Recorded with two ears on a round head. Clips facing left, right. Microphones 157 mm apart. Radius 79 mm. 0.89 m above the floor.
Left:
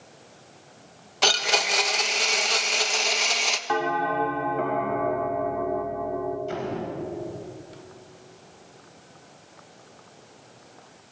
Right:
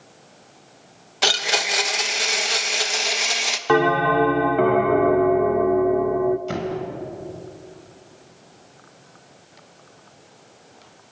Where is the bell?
70° right (ahead or behind), 1.1 m.